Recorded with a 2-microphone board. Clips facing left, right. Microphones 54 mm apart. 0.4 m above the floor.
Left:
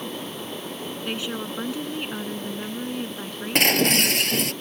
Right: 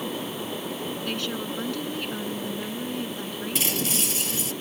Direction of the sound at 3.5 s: 60° left (ahead or behind).